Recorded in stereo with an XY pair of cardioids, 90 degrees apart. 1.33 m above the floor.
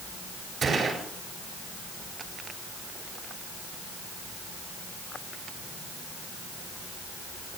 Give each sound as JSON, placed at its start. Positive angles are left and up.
{"t": 0.6, "sound": "a gunshot", "azimuth_deg": -45, "distance_m": 6.5}